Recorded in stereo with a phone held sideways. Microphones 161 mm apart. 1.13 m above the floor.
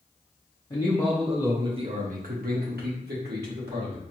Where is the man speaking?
25° left (ahead or behind), 1.0 m; by 4.0 s 85° right, 2 m.